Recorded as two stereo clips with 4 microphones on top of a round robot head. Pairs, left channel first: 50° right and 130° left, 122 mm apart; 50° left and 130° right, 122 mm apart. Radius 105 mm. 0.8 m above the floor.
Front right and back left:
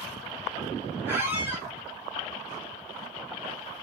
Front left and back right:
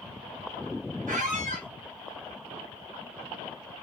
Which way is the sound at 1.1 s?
155° right.